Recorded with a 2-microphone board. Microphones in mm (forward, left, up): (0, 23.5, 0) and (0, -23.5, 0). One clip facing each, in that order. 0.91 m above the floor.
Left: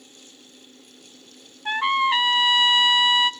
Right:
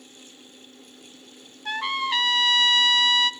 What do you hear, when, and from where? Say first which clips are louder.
1.6 s a trumpet: left 6 dB; 20° left (ahead or behind), 0.6 m